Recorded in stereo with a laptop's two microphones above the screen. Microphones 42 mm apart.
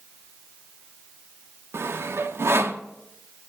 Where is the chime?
I don't hear a chime.